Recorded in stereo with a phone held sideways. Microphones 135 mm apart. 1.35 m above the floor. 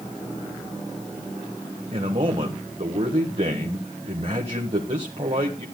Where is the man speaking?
50° right (ahead or behind), 1.4 m.